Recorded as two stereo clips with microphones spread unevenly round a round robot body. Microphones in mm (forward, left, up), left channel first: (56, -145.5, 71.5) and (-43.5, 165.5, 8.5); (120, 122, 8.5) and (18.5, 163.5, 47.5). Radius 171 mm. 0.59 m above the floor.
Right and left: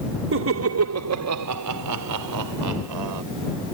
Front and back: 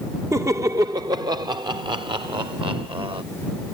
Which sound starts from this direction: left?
Laughter, at 0.3 s.